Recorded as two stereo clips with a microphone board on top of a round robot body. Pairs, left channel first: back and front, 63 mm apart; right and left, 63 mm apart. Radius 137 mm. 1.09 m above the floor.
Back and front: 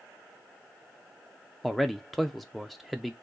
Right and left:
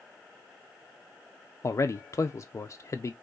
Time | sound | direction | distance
1.6 | a man speaking | 90° right | 0.6 m